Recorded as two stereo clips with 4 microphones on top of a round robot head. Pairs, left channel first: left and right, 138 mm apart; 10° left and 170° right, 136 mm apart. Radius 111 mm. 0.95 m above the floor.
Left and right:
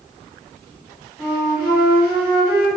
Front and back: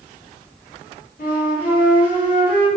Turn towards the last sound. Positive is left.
turn(degrees=-15)